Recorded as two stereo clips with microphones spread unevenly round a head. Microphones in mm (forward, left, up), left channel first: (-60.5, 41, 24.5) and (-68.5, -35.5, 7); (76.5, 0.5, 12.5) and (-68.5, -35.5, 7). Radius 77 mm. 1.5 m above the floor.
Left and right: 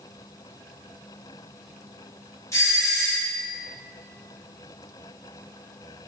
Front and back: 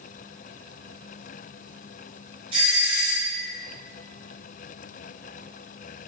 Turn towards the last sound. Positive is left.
turn(degrees=140)